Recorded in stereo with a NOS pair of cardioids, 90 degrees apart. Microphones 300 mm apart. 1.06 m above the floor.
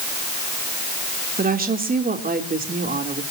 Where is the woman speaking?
30° right, 3 m.